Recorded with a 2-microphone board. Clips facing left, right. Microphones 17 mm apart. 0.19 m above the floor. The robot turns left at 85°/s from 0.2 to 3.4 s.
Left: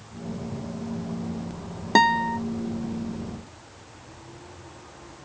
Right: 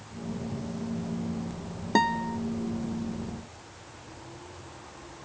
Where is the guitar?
150° left; by 2.4 s 110° left.